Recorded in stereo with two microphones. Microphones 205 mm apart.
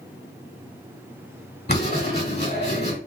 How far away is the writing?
About 2 m.